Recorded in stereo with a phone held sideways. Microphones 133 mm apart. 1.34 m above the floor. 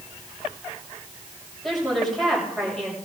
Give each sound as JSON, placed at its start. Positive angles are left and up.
{"t": 1.6, "sound": "a woman speaking", "side_deg": 0, "distance_m": 6.5}